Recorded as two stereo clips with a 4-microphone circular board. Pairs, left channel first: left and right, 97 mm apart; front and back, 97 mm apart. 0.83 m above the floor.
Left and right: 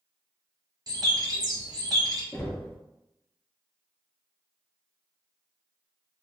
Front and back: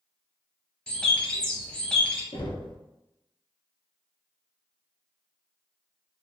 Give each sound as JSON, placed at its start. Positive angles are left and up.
{"t": 0.9, "sound": "a bird", "azimuth_deg": -80, "distance_m": 0.7}
{"t": 2.3, "sound": "knocking", "azimuth_deg": 25, "distance_m": 0.5}